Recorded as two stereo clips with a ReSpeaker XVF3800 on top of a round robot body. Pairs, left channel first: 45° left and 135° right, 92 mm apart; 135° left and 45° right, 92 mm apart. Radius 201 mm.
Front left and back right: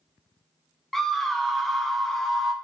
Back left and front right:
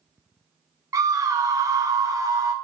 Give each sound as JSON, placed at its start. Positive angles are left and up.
{"t": 0.9, "sound": "a scream", "azimuth_deg": -40, "distance_m": 0.6}